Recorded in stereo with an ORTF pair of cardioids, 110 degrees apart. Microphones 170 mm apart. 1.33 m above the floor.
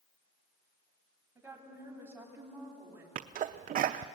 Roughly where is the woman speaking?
Ahead.